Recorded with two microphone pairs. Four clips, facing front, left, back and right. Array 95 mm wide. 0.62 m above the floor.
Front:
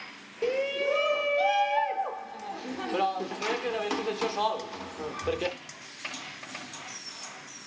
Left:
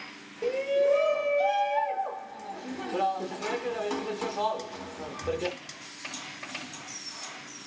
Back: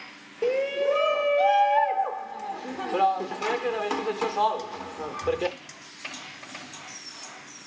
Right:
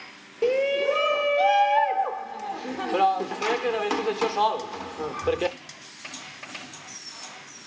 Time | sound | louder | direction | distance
0.4 | a shout | right 2 dB, back 4 dB | 120° right | 0.7 m